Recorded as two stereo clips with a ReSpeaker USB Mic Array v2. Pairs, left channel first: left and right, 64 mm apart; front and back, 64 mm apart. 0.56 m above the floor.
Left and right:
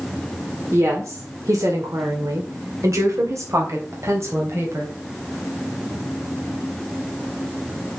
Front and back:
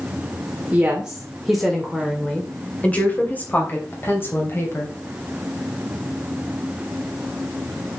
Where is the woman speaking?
115° right, 1.7 m; by 5.0 s 50° right, 3.5 m.